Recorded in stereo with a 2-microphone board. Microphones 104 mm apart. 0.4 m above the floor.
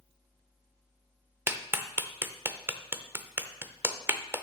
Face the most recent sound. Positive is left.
turn(degrees=-20)  # may be behind; listen again after turning